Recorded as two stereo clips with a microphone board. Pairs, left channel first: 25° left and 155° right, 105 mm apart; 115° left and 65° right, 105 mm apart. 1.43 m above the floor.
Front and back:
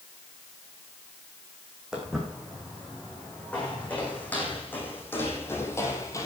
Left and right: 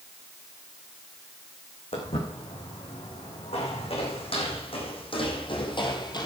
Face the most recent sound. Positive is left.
turn(degrees=75)